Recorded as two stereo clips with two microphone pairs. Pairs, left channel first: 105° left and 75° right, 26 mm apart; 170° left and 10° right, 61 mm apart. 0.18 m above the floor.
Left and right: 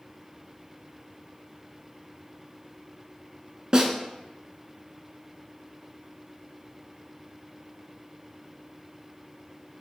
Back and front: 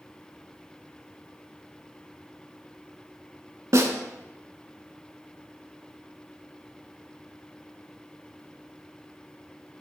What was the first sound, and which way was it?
A snare drum, 15° right.